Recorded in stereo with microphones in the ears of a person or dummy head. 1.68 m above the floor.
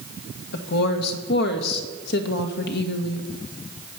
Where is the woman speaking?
65° left (ahead or behind), 1.6 m.